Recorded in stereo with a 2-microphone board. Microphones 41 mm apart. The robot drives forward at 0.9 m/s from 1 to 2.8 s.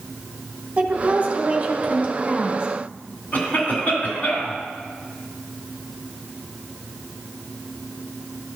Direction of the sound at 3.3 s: 45° left (ahead or behind).